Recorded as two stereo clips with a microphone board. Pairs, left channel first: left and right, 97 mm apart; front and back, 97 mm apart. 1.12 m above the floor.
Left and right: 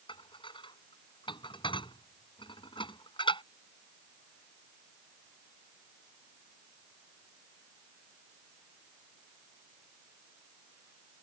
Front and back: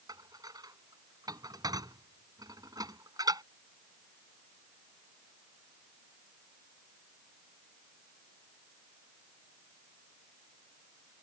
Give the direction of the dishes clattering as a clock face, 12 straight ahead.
8 o'clock.